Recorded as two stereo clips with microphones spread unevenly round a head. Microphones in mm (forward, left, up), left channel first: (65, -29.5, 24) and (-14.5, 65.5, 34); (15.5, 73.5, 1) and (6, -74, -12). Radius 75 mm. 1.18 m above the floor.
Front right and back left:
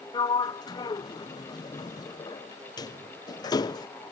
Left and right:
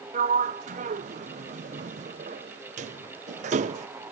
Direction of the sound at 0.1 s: 95° right.